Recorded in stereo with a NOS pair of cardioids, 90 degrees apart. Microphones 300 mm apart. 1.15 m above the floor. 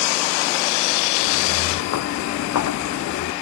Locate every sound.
1.2 s footsteps: 70° left